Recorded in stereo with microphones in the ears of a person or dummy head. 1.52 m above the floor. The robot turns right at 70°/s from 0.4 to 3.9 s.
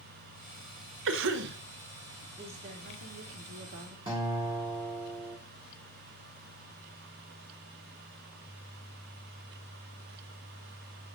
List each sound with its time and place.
1.1 s a cough: 105° right, 0.8 m; by 1.6 s 70° right, 0.8 m
2.4 s a woman speaking: 160° right, 1.0 m; by 4.0 s 50° right, 1.0 m
4.1 s a guitar: 25° right (ahead or behind), 1.9 m